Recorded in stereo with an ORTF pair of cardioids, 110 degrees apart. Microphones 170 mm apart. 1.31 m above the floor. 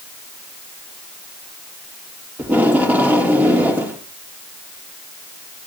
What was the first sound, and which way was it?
Tape being pulled, 10° right.